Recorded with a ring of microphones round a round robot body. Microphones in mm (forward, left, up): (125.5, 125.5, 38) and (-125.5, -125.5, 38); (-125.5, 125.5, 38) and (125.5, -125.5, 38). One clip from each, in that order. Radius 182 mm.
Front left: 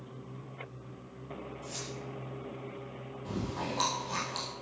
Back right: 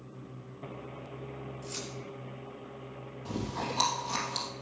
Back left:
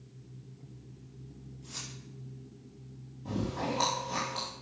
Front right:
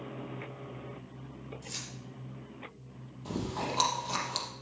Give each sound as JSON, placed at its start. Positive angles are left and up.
{"t": 1.6, "sound": "keys jangling", "azimuth_deg": -65, "distance_m": 7.0}
{"t": 3.2, "sound": "chewing", "azimuth_deg": -60, "distance_m": 3.5}